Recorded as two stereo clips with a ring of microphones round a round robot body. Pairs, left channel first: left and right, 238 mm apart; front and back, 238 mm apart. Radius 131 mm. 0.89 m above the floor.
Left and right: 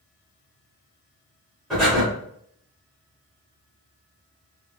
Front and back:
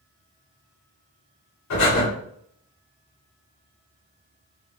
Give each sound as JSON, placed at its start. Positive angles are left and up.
{"t": 1.7, "sound": "breathing", "azimuth_deg": 0, "distance_m": 2.0}